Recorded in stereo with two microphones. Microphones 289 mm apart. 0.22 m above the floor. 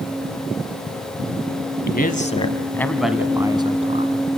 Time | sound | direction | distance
1.9 | a man speaking | 35° left (ahead or behind) | 1.4 m